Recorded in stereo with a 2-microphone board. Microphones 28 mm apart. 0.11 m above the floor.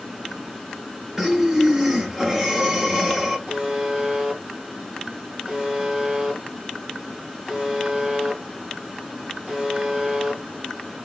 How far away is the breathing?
About 2 m.